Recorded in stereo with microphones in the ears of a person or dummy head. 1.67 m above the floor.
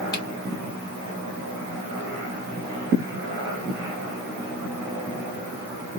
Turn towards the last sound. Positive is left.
turn(degrees=25)  # may be behind; listen again after turning